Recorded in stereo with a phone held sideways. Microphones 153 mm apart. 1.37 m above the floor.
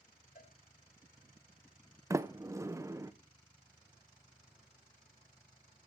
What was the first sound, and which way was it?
A cowbell, 75° left (ahead or behind).